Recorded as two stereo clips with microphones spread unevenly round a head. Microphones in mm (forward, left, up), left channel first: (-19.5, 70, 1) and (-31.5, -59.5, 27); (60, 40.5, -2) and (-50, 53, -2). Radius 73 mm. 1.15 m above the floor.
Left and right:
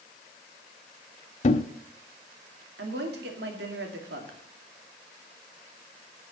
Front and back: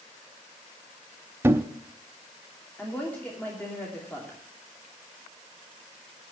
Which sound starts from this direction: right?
A woman speaking, at 2.8 s.